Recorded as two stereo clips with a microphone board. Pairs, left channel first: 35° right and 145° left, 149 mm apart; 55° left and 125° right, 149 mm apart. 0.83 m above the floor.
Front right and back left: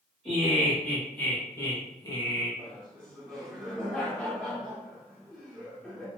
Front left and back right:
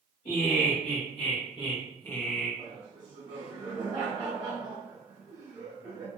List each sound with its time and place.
0.2 s laughter: 55° left, 1.5 m; by 2.5 s 40° right, 0.8 m
2.6 s laughter: 115° right, 0.9 m